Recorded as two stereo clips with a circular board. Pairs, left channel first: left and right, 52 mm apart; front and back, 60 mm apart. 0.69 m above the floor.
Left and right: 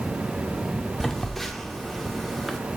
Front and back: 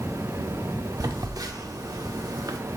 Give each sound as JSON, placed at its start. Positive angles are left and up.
{"t": 1.0, "sound": "a phone buzzing", "azimuth_deg": 175, "distance_m": 0.5}